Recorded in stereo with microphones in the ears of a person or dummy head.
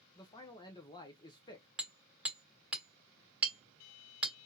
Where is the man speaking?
20° left (ahead or behind), 0.7 m.